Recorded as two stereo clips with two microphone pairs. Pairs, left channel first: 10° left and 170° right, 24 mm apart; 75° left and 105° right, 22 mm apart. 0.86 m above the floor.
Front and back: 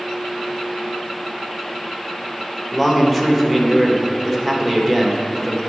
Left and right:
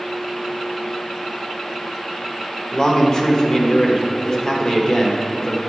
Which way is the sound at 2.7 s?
100° left.